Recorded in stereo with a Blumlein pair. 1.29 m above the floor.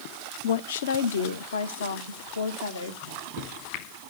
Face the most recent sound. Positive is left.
turn(degrees=45)